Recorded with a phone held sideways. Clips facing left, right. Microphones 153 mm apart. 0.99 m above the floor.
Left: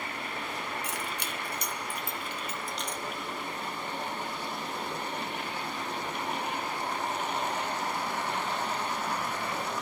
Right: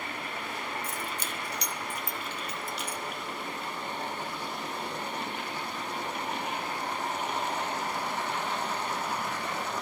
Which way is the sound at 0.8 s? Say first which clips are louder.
Even; 75° left (ahead or behind).